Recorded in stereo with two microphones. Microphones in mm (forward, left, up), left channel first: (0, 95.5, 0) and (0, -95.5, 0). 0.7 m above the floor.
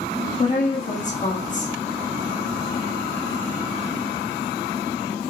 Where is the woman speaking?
40° left (ahead or behind), 1.2 m.